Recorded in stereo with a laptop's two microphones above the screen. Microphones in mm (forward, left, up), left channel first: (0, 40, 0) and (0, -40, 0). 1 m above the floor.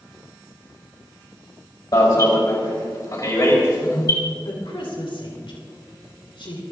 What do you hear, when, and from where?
1.9 s an alarm: 50° left (ahead or behind), 4 m
4.5 s a woman speaking: 80° left, 3.5 m